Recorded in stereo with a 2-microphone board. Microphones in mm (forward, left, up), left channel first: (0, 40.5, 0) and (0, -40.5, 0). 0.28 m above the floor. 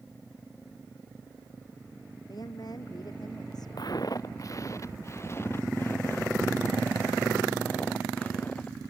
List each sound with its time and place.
2.3 s a woman speaking: 55° left (ahead or behind)
3.8 s footsteps: 60° left (ahead or behind); by 8.9 s 20° left (ahead or behind)